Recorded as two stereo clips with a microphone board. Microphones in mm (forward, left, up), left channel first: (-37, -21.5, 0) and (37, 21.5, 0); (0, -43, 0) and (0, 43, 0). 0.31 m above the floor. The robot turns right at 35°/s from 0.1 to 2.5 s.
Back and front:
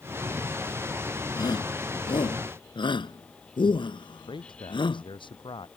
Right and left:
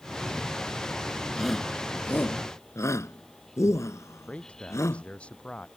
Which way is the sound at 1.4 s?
175° left.